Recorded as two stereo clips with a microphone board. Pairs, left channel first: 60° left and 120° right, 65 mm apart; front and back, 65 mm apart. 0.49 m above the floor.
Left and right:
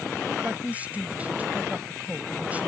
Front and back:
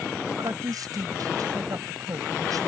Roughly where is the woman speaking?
Behind.